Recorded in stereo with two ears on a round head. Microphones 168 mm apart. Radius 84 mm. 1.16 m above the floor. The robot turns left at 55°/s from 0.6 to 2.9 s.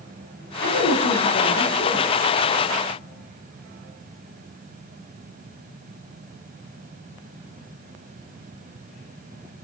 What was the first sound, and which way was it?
A woman speaking, 100° left.